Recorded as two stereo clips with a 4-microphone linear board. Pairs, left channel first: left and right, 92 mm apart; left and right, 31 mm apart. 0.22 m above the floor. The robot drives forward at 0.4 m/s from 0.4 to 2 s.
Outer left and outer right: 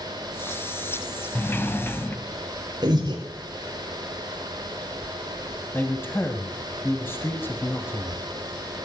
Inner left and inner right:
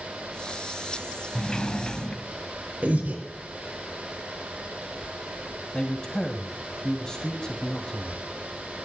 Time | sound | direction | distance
1.4 | a sliding door | 20° left (ahead or behind) | 1.2 m
2.8 | breathing | 50° right (ahead or behind) | 5.5 m
5.7 | a man speaking | 25° left (ahead or behind) | 1.4 m